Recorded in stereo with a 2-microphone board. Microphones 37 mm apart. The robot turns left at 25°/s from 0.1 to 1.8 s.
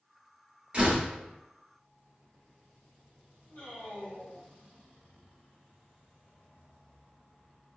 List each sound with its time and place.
0.7 s a door slam: 30° right (ahead or behind), 0.8 m; by 1.1 s 25° right (ahead or behind), 0.8 m
3.5 s a man speaking: 55° left (ahead or behind), 1.2 m